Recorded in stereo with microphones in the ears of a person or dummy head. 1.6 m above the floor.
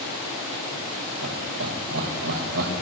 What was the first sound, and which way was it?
Laughter, 80° right.